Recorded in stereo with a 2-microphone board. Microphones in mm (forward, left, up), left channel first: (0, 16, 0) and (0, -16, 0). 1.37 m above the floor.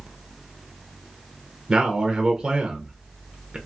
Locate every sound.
1.7 s a man speaking: 20° right (ahead or behind), 0.9 m